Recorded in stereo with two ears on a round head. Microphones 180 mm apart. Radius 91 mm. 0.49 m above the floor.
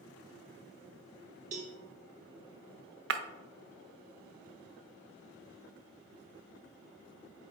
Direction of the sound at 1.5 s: 35° right (ahead or behind).